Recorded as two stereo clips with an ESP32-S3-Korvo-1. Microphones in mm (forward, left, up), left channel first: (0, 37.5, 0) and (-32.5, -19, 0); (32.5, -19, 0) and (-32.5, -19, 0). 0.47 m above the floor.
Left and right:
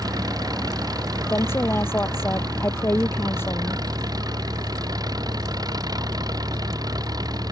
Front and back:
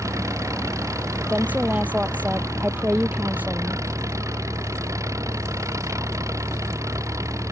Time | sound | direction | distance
0.0 | an engine running | 140° right | ?
1.3 | a woman speaking | 115° left | ?